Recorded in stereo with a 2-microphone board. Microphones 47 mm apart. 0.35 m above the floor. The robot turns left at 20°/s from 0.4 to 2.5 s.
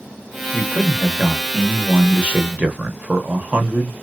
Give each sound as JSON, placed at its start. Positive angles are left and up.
{"t": 0.5, "sound": "a man speaking", "azimuth_deg": -25, "distance_m": 1.1}